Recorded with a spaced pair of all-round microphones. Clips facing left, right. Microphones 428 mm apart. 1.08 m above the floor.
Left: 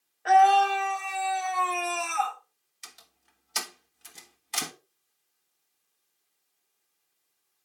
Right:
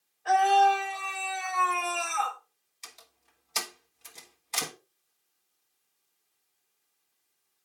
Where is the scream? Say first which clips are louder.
Left 2 dB; 75° left (ahead or behind), 1.7 m; by 2.4 s 40° left (ahead or behind), 2.5 m.